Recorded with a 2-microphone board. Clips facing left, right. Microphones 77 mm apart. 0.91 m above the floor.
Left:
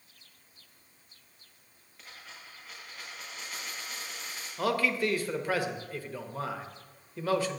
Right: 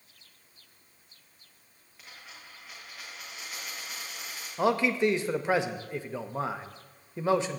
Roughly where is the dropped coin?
Centre.